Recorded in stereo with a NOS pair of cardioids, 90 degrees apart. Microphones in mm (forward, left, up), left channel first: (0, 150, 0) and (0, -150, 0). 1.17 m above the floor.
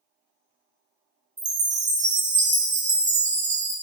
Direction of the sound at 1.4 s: 25° right.